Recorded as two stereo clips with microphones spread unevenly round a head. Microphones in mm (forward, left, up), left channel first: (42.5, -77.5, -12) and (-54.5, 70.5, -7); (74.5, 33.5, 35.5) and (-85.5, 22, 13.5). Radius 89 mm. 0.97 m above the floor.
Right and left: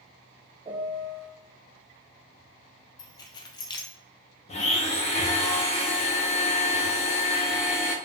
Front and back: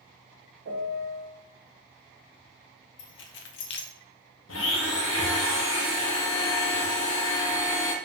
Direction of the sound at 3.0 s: 10° left.